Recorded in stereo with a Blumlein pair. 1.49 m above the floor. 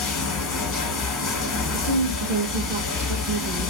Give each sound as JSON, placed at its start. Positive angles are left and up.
{"t": 0.0, "sound": "running water", "azimuth_deg": 25, "distance_m": 1.2}
{"t": 1.7, "sound": "a woman speaking", "azimuth_deg": -40, "distance_m": 0.6}